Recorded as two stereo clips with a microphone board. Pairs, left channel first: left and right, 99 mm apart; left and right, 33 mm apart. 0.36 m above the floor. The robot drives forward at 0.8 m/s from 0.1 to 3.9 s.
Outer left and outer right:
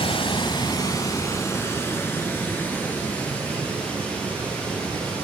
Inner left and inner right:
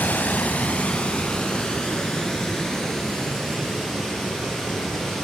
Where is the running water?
65° left (ahead or behind), 0.9 m; by 5.2 s 15° left (ahead or behind), 3.5 m.